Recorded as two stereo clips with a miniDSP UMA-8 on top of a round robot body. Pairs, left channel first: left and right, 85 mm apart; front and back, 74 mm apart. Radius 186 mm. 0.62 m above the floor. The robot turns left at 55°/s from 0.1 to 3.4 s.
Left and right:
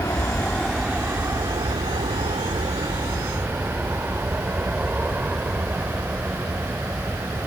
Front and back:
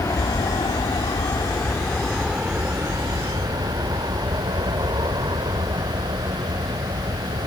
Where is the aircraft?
40° left; by 7.5 s 165° right.